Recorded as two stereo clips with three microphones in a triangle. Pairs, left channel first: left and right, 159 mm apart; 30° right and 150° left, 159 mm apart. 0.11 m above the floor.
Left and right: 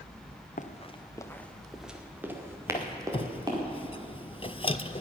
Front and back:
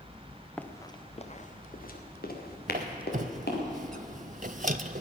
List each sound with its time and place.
0.6 s running footsteps: 55° left, 1.2 m; by 3.6 s 25° right, 4 m
2.7 s a squeak: 135° left, 0.5 m